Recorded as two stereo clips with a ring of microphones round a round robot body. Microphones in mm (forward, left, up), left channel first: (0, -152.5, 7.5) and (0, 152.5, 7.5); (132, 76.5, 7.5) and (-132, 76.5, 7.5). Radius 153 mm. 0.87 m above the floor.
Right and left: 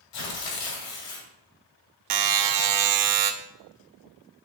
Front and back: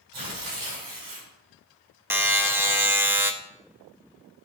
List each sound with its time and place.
0.1 s tearing paper: 105° right, 2 m
2.1 s a buzzer: 100° left, 0.9 m